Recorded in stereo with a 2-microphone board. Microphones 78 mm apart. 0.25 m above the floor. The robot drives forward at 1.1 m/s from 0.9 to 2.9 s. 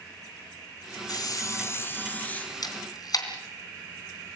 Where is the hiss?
60° left (ahead or behind), 0.6 m; by 2.5 s 20° left (ahead or behind), 1.8 m.